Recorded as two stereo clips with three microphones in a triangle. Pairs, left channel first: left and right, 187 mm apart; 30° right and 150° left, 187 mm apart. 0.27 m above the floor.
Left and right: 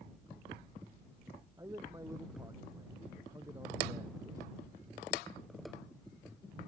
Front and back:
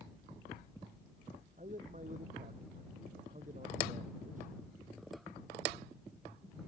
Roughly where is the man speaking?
Behind.